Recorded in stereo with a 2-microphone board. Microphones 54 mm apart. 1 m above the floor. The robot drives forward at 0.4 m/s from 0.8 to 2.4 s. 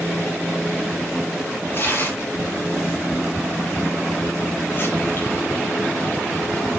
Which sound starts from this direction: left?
Tearing paper, at 1.7 s.